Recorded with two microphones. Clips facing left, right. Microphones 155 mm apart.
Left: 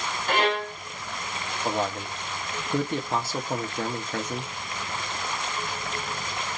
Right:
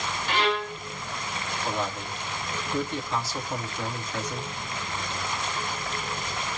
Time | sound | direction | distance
0.3 | a violin | 50° left (ahead or behind) | 0.9 m
1.6 | a man speaking | 50° left (ahead or behind) | 1.3 m